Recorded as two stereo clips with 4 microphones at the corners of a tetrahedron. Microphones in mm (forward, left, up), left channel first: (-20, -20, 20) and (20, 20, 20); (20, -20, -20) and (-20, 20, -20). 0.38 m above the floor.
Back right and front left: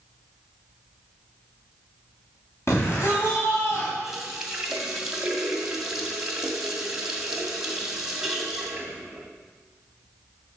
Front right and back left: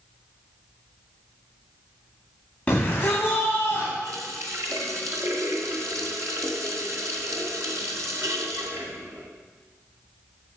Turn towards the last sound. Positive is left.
turn(degrees=125)